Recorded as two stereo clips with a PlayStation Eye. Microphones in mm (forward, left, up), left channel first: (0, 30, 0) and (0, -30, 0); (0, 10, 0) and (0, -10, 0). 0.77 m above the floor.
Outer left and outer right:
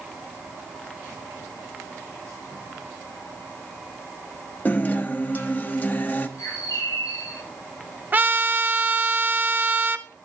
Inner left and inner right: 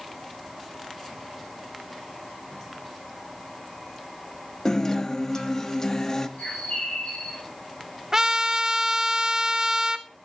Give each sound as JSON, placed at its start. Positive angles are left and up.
{"t": 4.7, "sound": "a guitar", "side_deg": 30, "distance_m": 0.8}
{"t": 6.4, "sound": "a bird", "side_deg": 75, "distance_m": 7.0}
{"t": 8.1, "sound": "a trumpet", "side_deg": -30, "distance_m": 0.6}